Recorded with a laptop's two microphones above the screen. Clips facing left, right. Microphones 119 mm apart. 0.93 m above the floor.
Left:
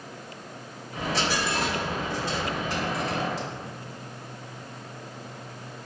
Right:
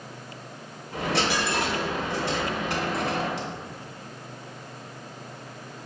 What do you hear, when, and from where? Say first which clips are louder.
0.9 s a dropped coin: right 2 dB; 65° right (ahead or behind), 1.0 m